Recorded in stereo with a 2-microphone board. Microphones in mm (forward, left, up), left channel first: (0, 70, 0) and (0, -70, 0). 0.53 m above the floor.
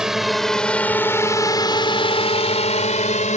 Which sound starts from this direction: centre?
A drone, at 0.0 s.